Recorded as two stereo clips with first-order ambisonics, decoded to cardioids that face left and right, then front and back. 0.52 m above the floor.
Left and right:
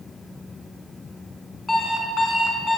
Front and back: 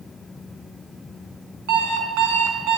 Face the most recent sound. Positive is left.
turn(degrees=165)